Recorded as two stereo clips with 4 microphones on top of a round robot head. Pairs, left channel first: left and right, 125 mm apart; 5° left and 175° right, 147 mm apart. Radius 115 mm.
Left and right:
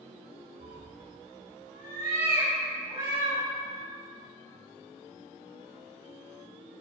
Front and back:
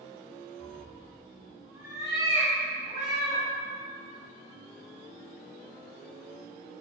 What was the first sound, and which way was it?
A cat meowing, 85° right.